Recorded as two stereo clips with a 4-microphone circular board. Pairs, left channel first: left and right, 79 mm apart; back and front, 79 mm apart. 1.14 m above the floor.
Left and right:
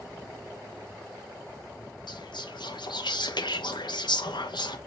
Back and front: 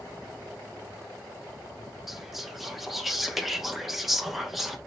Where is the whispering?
90° left, 0.9 m.